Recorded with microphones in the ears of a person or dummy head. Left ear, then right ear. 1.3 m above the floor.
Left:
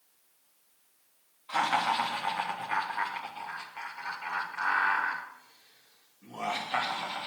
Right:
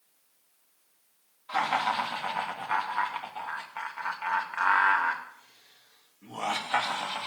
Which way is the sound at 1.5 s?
15° right (ahead or behind).